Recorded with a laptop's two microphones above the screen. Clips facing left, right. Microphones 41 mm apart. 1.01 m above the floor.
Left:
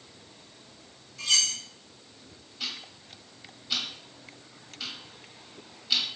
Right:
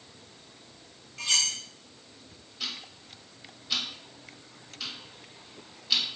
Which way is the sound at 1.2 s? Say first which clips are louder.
Left 1 dB; 70° right (ahead or behind).